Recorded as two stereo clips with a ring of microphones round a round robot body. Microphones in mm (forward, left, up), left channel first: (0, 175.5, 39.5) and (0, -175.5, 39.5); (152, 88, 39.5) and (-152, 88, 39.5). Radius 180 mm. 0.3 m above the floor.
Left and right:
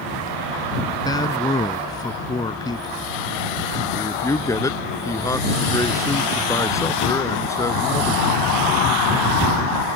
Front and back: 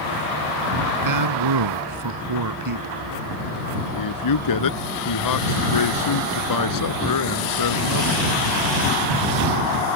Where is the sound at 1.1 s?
170° left.